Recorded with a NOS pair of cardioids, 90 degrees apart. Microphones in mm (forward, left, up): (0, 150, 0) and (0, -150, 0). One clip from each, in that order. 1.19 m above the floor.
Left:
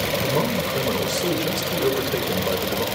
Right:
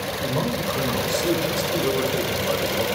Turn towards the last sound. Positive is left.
turn(degrees=40)